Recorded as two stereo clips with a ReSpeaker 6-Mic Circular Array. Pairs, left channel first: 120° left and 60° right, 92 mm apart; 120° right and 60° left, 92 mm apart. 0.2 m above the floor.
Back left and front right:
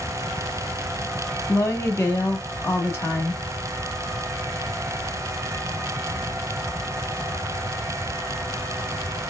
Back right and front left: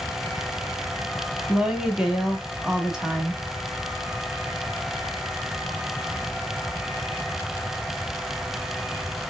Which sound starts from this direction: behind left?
A woman speaking, at 1.5 s.